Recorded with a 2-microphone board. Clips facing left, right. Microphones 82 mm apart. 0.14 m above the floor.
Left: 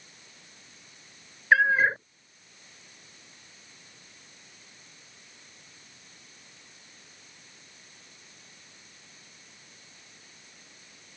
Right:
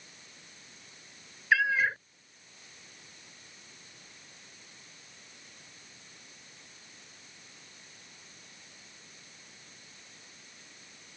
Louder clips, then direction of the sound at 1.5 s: Left 5 dB; 40° left (ahead or behind).